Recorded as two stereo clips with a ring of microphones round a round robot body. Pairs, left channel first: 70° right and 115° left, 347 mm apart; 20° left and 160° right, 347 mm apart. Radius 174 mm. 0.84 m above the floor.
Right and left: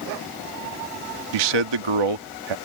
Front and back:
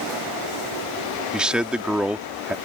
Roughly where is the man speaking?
Behind left.